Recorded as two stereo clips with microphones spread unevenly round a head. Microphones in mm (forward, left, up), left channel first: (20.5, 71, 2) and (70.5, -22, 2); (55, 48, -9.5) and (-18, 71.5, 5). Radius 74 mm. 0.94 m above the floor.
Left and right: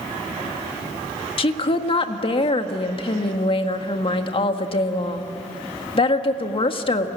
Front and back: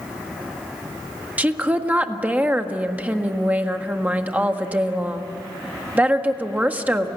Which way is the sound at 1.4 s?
90° left.